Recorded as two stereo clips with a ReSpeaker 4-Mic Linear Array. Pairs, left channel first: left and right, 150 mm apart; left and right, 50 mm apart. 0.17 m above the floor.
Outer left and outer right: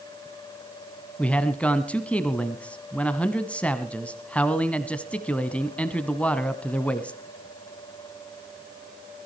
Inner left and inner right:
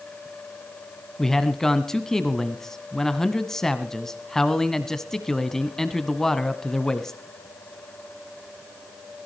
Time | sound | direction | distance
1.2 | a man speaking | 10° left (ahead or behind) | 1.3 m